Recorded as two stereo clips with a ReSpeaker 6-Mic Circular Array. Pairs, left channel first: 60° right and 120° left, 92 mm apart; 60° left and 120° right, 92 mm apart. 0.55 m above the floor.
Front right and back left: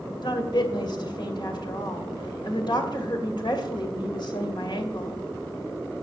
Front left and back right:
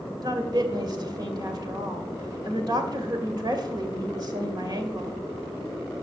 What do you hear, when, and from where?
0.2 s a woman speaking: 85° right, 2.5 m